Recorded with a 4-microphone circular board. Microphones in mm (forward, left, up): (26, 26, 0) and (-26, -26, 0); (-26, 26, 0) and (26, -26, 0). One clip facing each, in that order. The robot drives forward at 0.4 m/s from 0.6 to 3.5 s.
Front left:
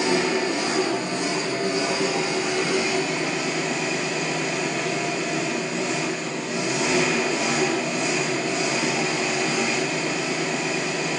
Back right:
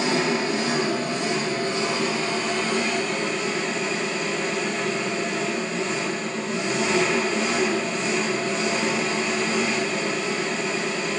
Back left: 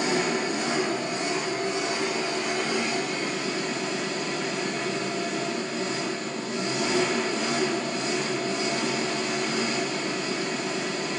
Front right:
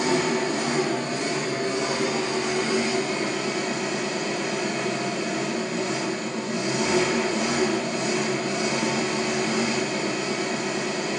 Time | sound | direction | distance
0.0 | an engine running | 25° right | 2.5 m